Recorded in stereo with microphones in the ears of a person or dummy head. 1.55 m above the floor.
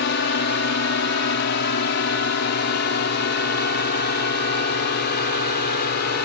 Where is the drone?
60° left (ahead or behind); by 6.2 s 55° left (ahead or behind).